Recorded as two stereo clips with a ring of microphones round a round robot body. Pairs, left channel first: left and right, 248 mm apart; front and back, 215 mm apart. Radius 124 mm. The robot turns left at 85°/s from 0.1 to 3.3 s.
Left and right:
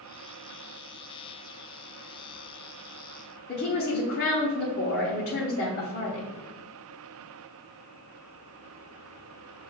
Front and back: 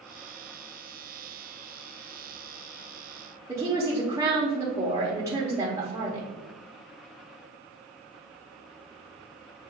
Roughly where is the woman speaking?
Left.